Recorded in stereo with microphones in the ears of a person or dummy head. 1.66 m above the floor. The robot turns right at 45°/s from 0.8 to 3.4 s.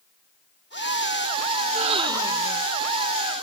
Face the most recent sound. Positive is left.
turn(degrees=30)